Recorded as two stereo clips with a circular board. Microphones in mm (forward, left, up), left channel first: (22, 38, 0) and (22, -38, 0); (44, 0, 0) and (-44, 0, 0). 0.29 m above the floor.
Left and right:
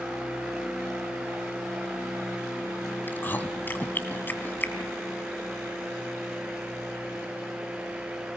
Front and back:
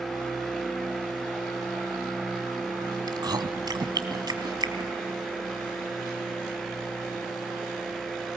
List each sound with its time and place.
3.1 s chewing: 150° left, 1.7 m